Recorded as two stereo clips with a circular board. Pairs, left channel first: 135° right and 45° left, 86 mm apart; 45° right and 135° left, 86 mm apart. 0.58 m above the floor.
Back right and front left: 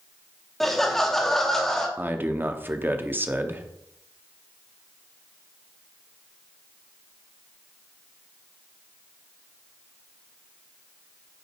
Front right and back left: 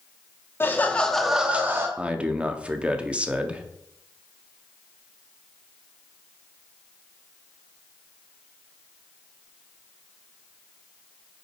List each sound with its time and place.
0.6 s laughter: 50° right, 0.9 m; by 1.9 s 145° left, 0.9 m
2.0 s a man speaking: 75° left, 0.6 m